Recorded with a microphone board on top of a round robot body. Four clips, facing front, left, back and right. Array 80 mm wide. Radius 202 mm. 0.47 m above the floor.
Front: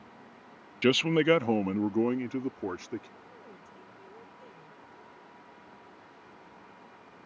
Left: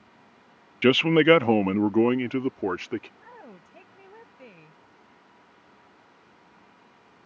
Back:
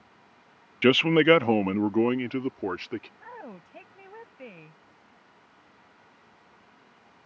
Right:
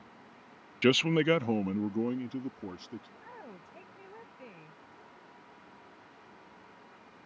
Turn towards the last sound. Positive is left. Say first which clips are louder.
# left 1 dB, back 7 dB
turn(degrees=175)